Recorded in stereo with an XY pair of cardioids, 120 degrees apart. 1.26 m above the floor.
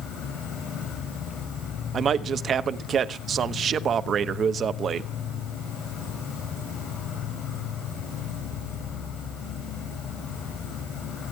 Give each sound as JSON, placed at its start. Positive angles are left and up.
{"t": 0.0, "sound": "an insect", "azimuth_deg": 65, "distance_m": 4.5}
{"t": 1.9, "sound": "a man speaking", "azimuth_deg": -45, "distance_m": 0.9}